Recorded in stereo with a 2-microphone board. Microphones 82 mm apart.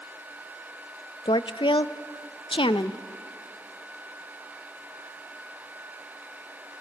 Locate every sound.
1.2 s a woman speaking: 80° left, 0.7 m